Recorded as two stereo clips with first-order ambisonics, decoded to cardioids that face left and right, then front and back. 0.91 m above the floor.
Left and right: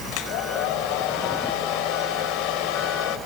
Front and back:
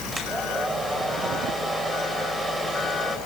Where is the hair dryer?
100° left, 5 m.